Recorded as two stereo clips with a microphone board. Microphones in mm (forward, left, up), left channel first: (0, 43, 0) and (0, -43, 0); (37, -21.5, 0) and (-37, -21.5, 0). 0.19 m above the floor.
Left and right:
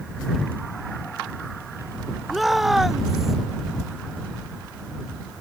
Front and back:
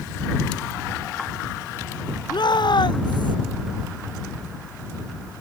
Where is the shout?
Straight ahead; by 3.4 s 5° right.